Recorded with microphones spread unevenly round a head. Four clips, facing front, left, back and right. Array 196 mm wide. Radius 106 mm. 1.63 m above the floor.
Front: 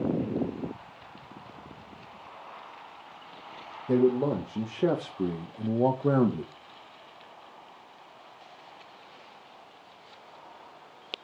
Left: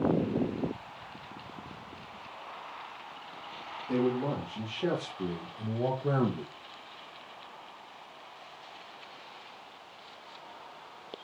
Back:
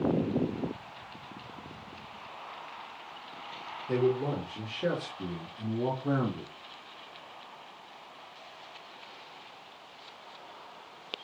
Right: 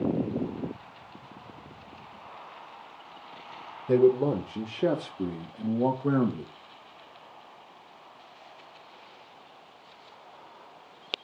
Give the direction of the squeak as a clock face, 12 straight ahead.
I don't hear a squeak.